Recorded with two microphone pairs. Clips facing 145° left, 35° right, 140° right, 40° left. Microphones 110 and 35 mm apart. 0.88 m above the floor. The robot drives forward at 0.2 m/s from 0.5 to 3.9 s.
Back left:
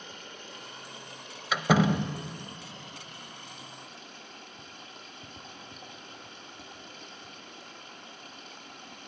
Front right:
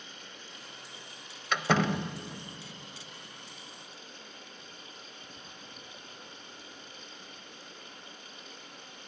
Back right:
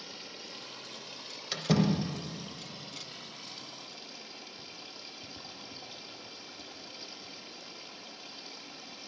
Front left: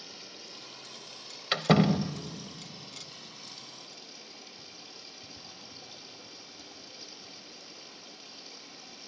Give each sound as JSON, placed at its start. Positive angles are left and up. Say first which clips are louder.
{"t": 0.0, "sound": "running water", "louder": "back left 4 dB, back right 2 dB", "azimuth_deg": 170, "distance_m": 1.3}
{"t": 1.5, "sound": "a door slam", "louder": "back left 3 dB, front left 4 dB", "azimuth_deg": 65, "distance_m": 0.6}